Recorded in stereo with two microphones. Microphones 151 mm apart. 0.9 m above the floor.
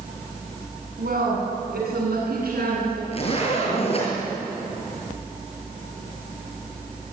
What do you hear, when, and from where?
1.0 s a woman speaking: 85° right, 7.5 m
3.1 s a zipper: 40° left (ahead or behind), 7 m